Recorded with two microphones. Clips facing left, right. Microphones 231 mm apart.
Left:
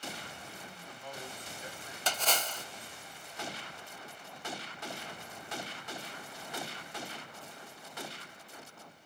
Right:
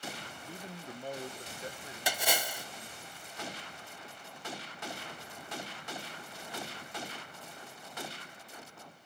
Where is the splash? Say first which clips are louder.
Right 1 dB; 10° right (ahead or behind), 0.7 m.